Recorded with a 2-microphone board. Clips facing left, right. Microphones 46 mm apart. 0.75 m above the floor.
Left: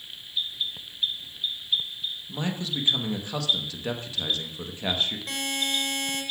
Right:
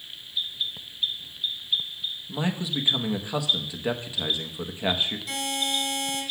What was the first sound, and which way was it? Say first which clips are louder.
A man speaking: right 3 dB; 10° right (ahead or behind).